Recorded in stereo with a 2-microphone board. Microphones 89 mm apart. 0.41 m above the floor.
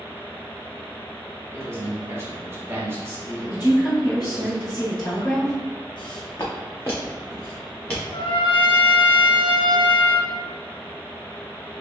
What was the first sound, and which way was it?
A man speaking, 30° right (ahead or behind).